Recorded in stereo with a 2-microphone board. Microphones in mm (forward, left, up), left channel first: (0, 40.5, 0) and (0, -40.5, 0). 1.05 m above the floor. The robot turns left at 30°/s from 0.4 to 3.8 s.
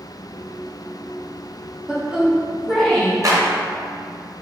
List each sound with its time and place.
1.9 s a woman speaking: 160° right, 1.4 m; by 3.1 s 165° left, 1.4 m
3.2 s a clap: 45° right (ahead or behind), 1.1 m; by 3.4 s 50° right (ahead or behind), 1.1 m